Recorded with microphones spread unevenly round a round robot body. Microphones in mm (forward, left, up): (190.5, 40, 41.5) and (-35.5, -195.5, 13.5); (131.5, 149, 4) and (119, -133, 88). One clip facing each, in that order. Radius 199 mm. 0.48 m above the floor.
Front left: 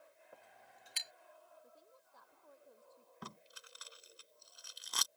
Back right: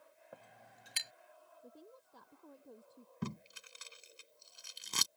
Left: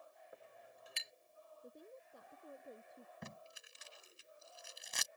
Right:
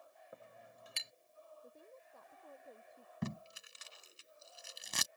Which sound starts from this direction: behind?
A woman speaking, at 1.6 s.